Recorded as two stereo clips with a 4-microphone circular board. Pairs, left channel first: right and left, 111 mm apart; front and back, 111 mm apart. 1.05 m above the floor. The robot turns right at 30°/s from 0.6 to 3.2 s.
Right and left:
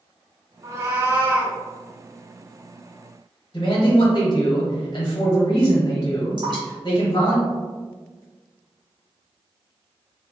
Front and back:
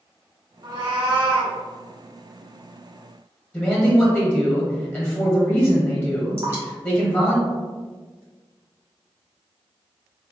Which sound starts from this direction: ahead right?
A man speaking, at 3.5 s.